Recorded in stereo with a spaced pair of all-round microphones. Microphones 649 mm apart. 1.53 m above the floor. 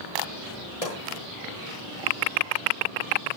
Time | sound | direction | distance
0.8 | a pop | 65° left (ahead or behind) | 8.5 m